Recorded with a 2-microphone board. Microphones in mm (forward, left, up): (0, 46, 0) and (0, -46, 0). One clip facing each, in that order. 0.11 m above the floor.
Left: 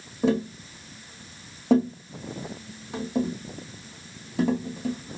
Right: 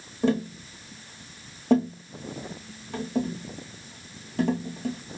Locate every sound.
0.2 s tapping: 5° left (ahead or behind), 1.2 m